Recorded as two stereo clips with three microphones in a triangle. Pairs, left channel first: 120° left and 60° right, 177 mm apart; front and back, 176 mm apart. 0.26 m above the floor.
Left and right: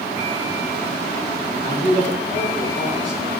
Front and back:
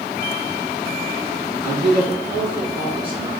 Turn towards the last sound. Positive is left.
turn(degrees=-120)